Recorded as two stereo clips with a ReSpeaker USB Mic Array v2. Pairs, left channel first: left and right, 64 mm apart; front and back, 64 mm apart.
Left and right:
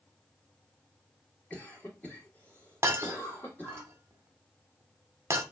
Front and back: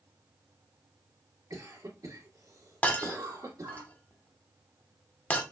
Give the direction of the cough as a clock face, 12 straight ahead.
7 o'clock.